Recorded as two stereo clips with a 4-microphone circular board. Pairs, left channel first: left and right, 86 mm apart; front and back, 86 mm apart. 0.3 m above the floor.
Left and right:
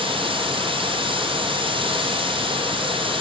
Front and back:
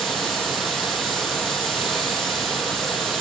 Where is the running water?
90° right, 5.5 m.